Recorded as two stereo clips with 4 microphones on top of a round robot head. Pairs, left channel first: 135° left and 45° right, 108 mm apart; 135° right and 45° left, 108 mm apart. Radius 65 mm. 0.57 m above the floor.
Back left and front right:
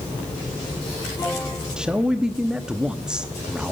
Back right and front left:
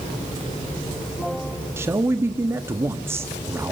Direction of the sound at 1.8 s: 30° left.